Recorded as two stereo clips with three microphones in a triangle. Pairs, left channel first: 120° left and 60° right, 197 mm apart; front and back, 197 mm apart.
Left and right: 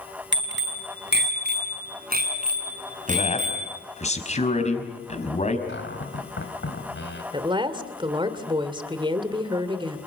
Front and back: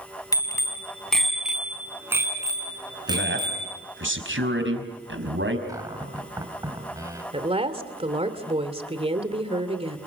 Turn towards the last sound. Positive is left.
turn(degrees=-120)